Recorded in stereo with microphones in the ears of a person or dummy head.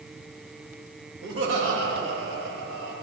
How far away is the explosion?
No explosion in this recording.